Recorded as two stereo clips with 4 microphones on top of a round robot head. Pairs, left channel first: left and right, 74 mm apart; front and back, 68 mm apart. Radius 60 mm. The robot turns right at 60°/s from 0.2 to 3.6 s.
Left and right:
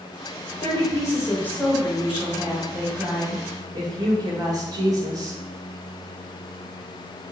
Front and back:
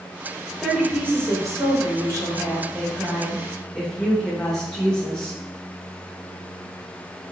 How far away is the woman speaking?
About 1.7 m.